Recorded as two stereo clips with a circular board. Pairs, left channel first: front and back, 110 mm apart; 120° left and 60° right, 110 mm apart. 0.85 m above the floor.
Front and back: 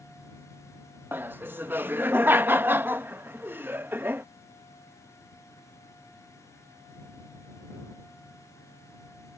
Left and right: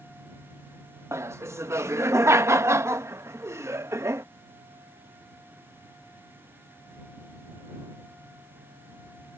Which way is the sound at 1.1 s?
115° right.